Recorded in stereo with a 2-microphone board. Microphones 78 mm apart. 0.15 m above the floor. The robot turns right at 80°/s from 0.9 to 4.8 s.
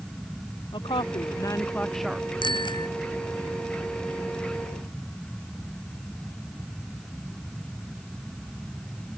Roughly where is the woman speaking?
Left.